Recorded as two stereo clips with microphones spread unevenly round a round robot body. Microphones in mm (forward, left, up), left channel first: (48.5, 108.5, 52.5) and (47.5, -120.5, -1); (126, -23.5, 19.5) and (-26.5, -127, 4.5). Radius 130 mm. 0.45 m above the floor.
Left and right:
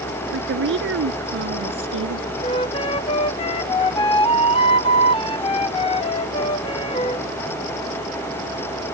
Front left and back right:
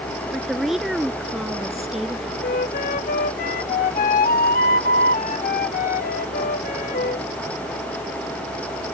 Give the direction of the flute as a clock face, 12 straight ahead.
11 o'clock.